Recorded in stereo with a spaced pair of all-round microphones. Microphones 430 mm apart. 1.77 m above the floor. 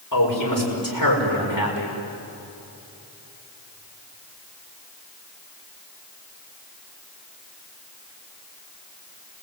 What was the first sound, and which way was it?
A man speaking, 45° left (ahead or behind).